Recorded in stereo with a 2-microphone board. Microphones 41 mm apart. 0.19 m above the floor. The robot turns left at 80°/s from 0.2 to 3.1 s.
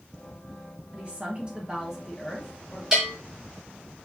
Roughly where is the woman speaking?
Right.